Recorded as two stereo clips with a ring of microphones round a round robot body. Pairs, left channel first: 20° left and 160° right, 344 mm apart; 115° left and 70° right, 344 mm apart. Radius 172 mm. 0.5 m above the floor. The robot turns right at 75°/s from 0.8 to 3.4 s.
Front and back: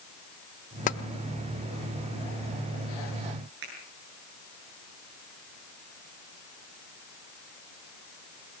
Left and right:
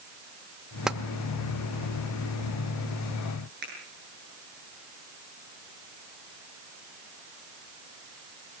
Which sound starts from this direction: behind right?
A finger snap, at 3.6 s.